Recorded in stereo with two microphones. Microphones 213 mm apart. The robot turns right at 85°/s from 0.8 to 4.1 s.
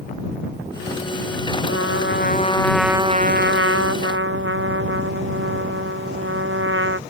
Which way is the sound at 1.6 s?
85° left.